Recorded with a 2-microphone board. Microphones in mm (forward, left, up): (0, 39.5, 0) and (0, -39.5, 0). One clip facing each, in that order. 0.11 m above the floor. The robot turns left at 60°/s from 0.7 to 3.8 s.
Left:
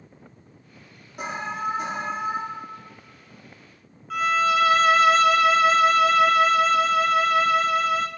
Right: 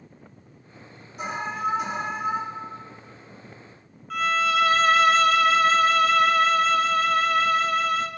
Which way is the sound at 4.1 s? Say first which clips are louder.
Left 2 dB; 5° left (ahead or behind).